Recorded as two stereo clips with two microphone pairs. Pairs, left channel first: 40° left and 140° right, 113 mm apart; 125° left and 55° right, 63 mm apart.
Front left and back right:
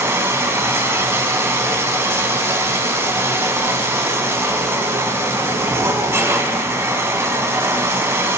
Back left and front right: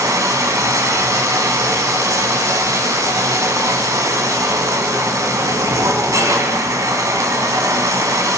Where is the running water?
70° right, 3 m.